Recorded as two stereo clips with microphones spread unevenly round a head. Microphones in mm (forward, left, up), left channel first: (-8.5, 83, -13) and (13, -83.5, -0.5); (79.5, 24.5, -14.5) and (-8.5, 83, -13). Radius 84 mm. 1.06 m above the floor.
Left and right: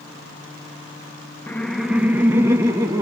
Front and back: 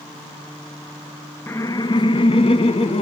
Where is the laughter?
25° left, 0.7 m; by 3.0 s 10° right, 2 m.